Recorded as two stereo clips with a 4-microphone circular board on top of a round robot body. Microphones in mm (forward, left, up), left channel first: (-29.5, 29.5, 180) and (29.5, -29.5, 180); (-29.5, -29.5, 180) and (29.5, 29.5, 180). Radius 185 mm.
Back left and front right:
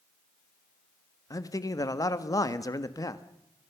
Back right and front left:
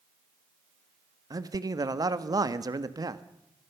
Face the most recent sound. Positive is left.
turn(degrees=90)